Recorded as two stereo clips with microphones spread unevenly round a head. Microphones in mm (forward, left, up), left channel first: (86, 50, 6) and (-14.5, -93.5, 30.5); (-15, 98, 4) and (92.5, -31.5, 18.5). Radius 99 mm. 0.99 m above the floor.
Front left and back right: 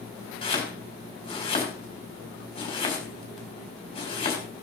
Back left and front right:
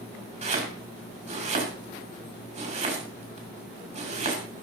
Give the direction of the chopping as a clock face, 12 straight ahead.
12 o'clock.